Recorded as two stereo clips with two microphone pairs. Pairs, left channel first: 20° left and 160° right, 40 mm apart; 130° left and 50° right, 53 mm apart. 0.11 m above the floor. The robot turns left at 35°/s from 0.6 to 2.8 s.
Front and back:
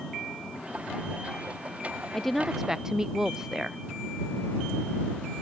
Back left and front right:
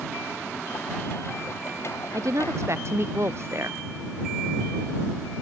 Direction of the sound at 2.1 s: 65° right.